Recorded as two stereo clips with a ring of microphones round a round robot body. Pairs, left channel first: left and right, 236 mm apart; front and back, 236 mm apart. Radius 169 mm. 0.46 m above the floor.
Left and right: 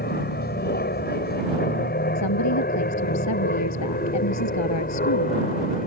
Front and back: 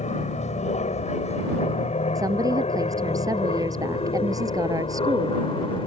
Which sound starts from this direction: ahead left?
An aircraft, at 0.0 s.